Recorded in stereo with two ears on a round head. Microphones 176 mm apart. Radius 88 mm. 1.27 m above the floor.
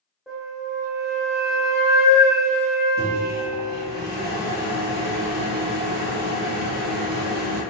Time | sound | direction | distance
0.3 | a flute | 5° right (ahead or behind) | 0.9 m
3.0 | a microwave | 55° right (ahead or behind) | 1.5 m